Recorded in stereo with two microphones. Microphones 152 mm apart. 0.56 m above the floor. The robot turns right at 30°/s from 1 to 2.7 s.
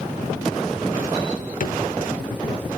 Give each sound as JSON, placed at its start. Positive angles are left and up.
{"t": 1.6, "sound": "a drawer", "side_deg": 60, "distance_m": 0.9}